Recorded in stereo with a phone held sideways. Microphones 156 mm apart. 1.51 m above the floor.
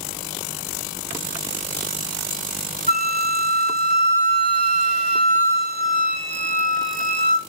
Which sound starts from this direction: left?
A flute, at 2.9 s.